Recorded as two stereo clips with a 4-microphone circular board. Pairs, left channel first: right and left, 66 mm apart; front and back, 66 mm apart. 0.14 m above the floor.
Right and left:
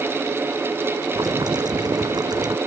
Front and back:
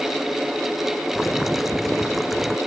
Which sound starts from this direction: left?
Boiling, at 1.1 s.